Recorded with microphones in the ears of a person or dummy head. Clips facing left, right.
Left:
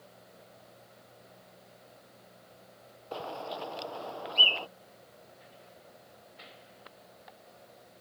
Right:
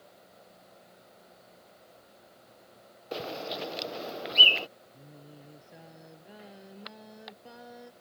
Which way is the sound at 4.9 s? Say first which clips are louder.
Right 4 dB; 85° right.